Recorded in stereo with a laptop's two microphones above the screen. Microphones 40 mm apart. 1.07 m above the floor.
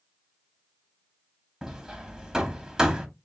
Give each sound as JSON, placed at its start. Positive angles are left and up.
{"t": 1.6, "sound": "hammering", "side_deg": -10, "distance_m": 1.0}